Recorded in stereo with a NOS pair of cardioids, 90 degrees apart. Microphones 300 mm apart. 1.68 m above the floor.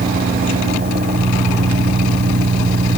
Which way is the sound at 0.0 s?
30° right.